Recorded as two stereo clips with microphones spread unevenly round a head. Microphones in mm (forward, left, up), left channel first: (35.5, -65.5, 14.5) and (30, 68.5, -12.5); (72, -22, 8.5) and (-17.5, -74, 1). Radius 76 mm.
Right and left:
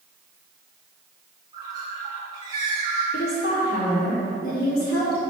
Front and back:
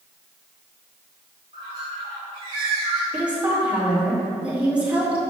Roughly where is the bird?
Behind.